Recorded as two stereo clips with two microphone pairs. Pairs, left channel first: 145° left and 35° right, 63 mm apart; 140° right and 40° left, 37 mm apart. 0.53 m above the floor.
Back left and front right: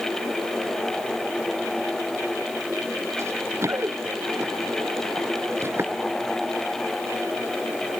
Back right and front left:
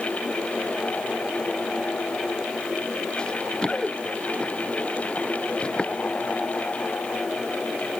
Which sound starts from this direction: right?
Running footsteps, at 3.2 s.